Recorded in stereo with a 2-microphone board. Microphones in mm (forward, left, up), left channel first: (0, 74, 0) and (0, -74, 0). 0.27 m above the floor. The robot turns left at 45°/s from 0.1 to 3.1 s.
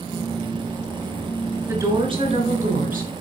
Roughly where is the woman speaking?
Ahead.